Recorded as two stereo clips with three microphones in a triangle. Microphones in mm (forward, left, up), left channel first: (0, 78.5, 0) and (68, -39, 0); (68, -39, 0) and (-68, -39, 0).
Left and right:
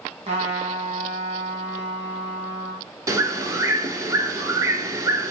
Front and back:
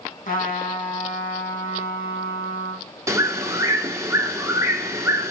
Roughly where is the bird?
Behind right.